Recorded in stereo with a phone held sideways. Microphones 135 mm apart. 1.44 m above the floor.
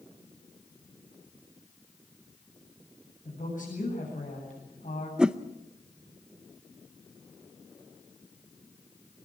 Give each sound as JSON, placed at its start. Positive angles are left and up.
{"t": 3.2, "sound": "a woman speaking", "side_deg": 80, "distance_m": 8.5}
{"t": 5.2, "sound": "a whoosh", "side_deg": -5, "distance_m": 0.7}